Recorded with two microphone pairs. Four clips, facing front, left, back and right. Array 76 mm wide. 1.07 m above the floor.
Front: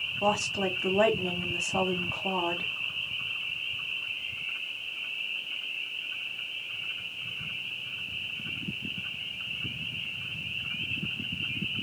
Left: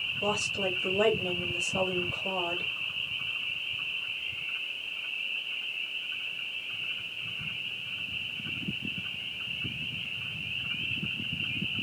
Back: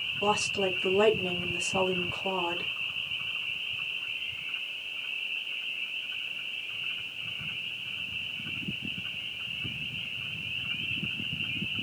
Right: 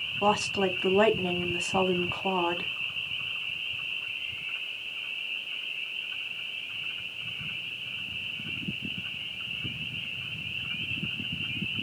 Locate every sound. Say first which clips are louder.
0.2 s a woman speaking: right 6 dB, even; 75° right, 2 m